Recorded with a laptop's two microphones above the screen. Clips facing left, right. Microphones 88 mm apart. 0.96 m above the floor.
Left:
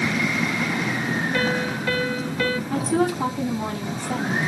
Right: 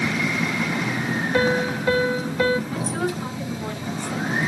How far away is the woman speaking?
About 8 m.